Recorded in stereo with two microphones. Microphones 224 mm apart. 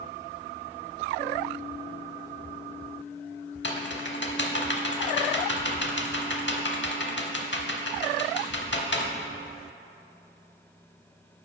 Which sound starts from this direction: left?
Typing on a keyboard, at 3.6 s.